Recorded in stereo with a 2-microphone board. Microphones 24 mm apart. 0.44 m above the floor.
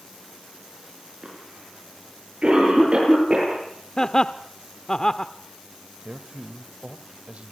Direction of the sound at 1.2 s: 40° right (ahead or behind).